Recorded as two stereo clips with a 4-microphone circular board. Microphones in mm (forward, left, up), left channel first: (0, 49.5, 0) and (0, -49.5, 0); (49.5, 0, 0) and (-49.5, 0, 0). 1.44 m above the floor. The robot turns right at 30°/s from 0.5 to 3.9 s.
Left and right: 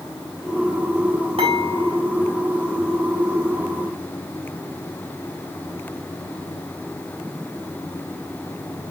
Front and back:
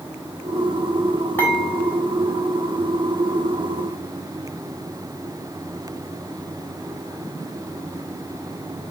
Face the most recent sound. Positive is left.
turn(degrees=5)